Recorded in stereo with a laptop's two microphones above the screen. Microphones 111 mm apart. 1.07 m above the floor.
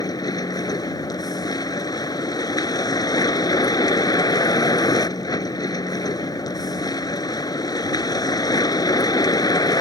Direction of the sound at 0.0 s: 35° left (ahead or behind).